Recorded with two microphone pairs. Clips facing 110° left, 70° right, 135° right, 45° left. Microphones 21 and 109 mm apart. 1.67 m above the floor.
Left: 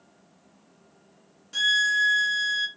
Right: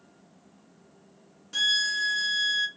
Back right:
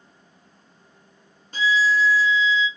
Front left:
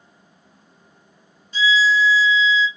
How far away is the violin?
About 0.5 m.